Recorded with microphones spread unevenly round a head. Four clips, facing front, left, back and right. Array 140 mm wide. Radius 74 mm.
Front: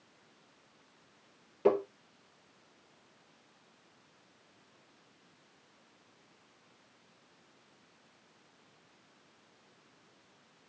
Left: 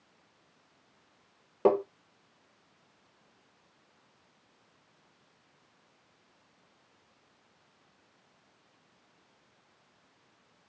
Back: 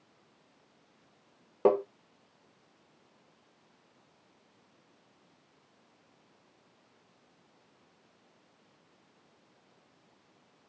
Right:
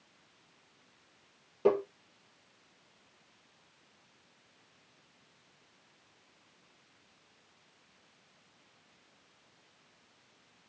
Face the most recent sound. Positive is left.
turn(degrees=150)